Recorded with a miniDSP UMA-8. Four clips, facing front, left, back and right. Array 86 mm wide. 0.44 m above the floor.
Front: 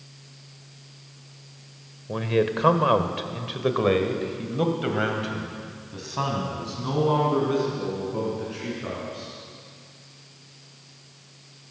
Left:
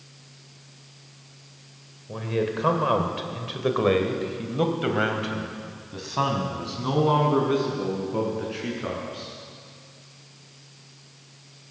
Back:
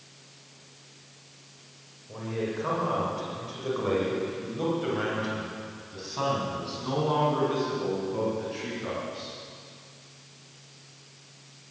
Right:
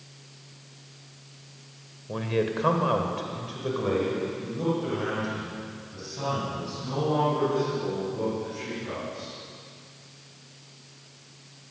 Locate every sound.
2.1 s a man speaking: 15° right, 1.5 m; by 9.3 s 85° left, 5 m